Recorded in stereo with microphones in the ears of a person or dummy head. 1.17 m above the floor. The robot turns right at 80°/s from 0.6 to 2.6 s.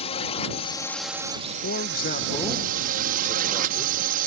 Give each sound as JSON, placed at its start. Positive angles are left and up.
{"t": 0.0, "sound": "a drone", "azimuth_deg": 145}
{"t": 1.6, "sound": "a man speaking", "azimuth_deg": 90}